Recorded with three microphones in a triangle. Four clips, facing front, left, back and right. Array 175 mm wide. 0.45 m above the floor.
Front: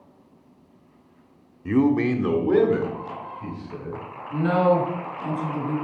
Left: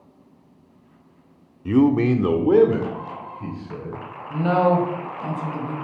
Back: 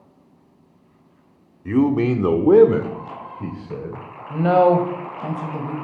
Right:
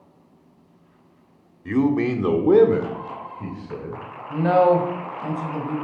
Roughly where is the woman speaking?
Behind.